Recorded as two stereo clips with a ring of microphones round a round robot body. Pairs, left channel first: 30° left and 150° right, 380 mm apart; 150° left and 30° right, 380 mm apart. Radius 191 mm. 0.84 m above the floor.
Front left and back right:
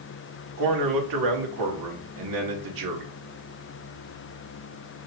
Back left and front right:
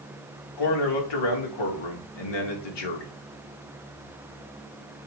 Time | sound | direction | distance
0.6 | a man speaking | 170° left | 2 m